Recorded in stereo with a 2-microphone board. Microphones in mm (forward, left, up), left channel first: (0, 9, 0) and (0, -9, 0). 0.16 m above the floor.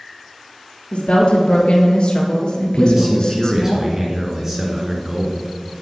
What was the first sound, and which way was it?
A woman speaking, 65° left (ahead or behind).